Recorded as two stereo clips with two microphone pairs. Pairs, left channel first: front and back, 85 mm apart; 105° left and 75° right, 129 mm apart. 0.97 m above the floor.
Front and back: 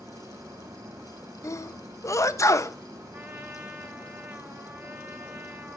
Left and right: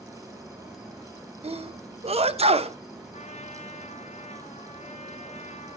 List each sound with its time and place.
0.0 s an insect: 160° right, 2 m
1.4 s a sneeze: 50° right, 0.7 m
3.1 s a trumpet: 120° left, 1.1 m